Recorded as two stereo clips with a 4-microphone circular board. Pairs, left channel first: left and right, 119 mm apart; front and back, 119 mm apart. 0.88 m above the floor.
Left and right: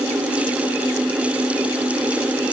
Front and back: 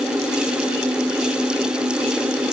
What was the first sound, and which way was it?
Only background noise.